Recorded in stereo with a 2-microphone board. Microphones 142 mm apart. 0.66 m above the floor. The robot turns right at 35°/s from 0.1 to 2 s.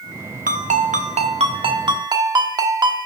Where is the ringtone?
85° right, 1.0 m; by 3.1 s 30° right, 1.0 m.